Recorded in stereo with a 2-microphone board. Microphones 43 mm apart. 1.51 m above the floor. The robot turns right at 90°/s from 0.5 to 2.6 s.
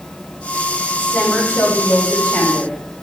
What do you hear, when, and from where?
1.0 s a woman speaking: straight ahead, 6.5 m; by 2.9 s 145° left, 6.5 m